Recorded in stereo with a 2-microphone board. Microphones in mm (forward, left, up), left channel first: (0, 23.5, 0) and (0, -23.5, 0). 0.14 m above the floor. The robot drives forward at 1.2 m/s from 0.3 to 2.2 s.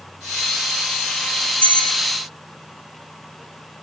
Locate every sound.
1.6 s a bell: 35° left (ahead or behind), 9 m